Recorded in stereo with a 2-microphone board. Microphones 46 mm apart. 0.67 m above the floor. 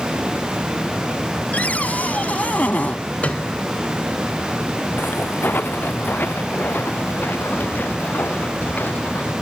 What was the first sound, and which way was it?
A cupboard door, 35° left (ahead or behind).